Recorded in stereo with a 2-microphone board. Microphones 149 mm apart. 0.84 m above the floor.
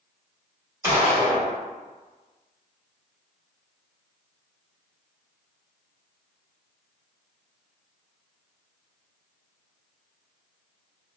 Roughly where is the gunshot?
Right.